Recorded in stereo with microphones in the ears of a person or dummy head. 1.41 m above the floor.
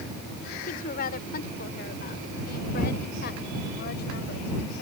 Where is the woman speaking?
45° left (ahead or behind); by 4.8 s 55° left (ahead or behind).